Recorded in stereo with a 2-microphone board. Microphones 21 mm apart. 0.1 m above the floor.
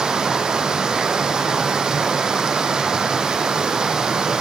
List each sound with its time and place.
0.0 s running water: 40° right (ahead or behind), 1.1 m